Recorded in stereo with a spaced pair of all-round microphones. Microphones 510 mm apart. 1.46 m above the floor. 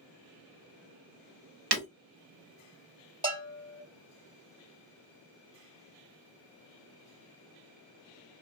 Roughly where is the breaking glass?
Right.